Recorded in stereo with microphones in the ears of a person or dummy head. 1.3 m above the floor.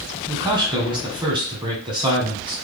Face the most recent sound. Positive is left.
turn(degrees=-25)  # may be behind; listen again after turning